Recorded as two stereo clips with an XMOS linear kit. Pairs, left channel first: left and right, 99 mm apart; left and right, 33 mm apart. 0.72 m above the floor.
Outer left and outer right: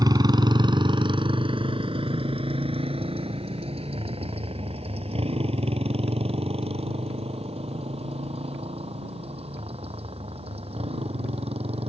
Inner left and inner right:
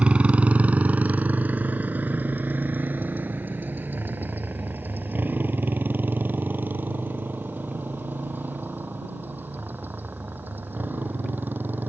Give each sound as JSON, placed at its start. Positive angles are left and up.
{"t": 0.0, "sound": "a motorcycle", "side_deg": -45}